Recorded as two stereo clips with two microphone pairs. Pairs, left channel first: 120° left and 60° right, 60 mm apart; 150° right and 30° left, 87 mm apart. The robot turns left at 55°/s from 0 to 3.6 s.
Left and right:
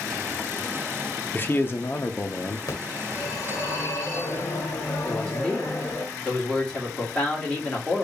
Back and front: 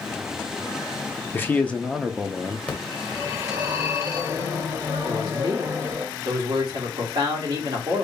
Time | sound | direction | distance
1.3 | a man speaking | 160° left | 0.6 m
2.7 | a phone ringing | 130° left | 1.4 m
5.0 | a man speaking | 45° left | 1.7 m